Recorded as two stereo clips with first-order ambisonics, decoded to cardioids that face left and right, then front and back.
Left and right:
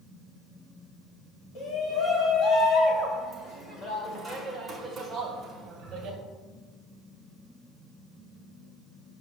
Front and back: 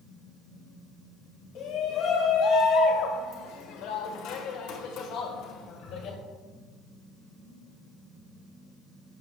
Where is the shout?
45° left, 2.5 m; by 6.2 s 35° right, 1.6 m.